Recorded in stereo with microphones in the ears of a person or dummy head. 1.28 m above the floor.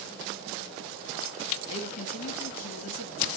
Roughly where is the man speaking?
Left.